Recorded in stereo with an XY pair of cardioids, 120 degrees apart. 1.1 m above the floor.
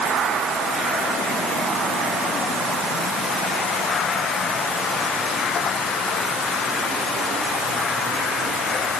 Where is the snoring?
No snoring in this recording.